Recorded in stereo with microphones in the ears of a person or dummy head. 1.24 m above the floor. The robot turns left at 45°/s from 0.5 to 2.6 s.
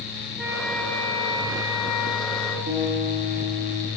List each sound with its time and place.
0.4 s a flute: 175° right, 3.5 m; by 2.6 s 90° left, 3.5 m
2.7 s a guitar: 55° right (ahead or behind), 9 m